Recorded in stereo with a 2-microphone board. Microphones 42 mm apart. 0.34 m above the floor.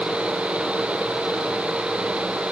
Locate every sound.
Only background noise.